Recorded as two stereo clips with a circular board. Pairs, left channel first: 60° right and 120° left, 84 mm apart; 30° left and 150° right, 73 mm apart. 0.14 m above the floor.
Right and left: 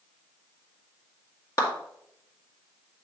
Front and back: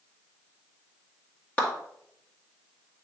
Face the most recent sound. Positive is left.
turn(degrees=-30)